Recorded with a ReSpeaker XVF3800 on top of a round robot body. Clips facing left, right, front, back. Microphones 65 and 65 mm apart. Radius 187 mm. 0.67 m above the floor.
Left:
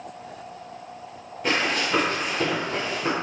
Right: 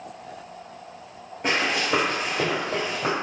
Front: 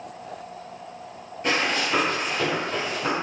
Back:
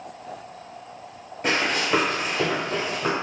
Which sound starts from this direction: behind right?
Running footsteps, at 1.4 s.